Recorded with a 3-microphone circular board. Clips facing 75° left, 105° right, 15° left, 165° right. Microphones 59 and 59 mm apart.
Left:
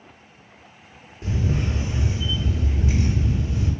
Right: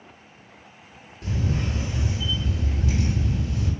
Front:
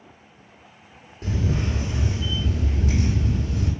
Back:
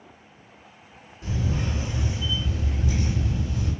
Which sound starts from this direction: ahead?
A camera shutter, at 1.2 s.